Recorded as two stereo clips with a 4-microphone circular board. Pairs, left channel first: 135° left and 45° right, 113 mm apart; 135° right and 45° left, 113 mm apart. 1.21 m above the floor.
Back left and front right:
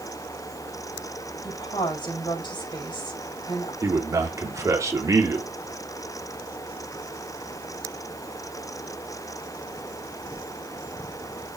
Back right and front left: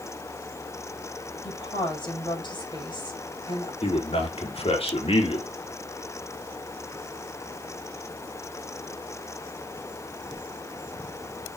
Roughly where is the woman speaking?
Behind.